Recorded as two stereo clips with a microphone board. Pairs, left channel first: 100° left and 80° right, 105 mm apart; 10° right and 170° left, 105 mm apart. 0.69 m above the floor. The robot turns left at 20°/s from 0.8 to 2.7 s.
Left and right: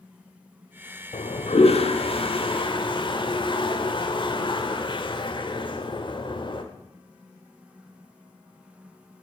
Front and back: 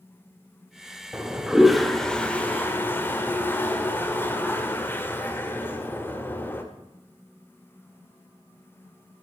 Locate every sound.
1.1 s a toilet flushing: 90° left, 1.4 m; by 6.6 s 60° left, 1.4 m